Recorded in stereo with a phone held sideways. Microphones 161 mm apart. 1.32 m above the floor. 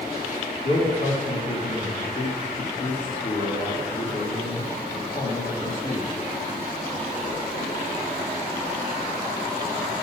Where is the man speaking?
50° left (ahead or behind), 2.5 m.